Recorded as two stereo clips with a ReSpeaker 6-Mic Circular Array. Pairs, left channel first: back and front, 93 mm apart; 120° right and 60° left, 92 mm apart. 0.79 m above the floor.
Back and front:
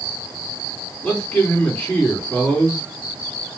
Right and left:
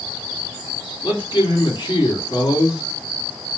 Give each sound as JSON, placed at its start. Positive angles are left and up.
{"t": 1.0, "sound": "a man speaking", "azimuth_deg": -115, "distance_m": 1.8}